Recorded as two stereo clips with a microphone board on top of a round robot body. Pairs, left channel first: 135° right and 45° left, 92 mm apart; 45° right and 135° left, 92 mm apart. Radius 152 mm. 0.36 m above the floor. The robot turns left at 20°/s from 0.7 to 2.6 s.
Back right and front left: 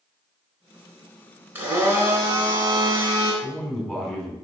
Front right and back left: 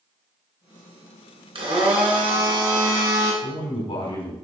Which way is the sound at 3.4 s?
45° right.